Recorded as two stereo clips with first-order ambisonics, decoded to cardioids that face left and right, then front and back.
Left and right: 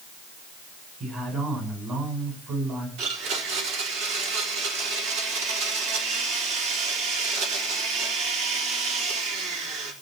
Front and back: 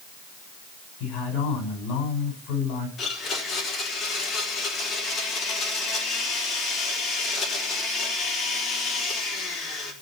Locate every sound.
1.0 s a man speaking: 35° right, 8.5 m
3.0 s a blender: 65° right, 3.5 m